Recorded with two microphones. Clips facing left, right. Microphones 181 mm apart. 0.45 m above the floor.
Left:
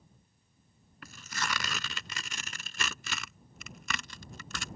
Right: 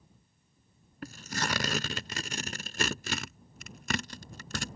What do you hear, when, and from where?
1.0 s tearing paper: 45° right (ahead or behind)